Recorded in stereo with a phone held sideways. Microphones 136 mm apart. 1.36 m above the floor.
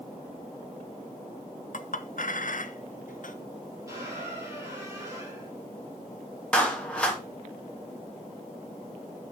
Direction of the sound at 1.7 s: 70° left (ahead or behind).